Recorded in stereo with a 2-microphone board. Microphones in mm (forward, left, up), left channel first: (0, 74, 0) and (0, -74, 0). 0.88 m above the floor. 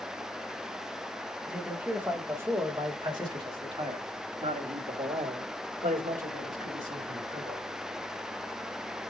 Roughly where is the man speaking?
Centre.